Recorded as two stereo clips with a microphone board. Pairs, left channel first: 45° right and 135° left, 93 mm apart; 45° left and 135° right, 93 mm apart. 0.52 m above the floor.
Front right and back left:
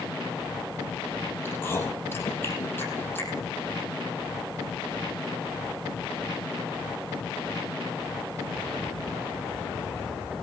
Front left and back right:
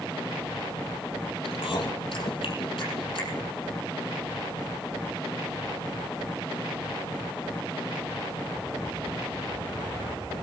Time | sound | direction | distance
1.4 | chewing | 20° left | 5 m